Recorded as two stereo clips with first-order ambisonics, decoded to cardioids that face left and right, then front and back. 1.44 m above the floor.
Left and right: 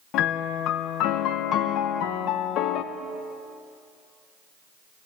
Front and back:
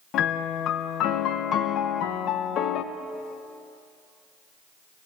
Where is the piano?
50° left, 1.0 m.